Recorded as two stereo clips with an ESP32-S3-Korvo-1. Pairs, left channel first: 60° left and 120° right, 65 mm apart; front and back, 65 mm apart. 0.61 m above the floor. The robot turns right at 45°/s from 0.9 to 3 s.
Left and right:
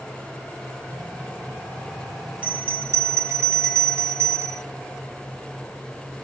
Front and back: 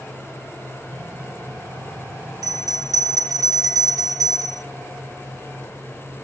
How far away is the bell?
About 2 m.